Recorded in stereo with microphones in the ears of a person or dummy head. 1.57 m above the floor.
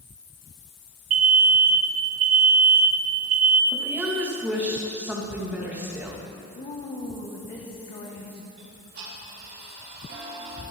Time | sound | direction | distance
1.1 | an alarm | 80° right | 1.1 m
3.7 | a woman speaking | 10° right (ahead or behind) | 2.5 m
6.5 | a woman speaking | 30° left (ahead or behind) | 1.1 m
8.6 | ticking | 60° right (ahead or behind) | 4 m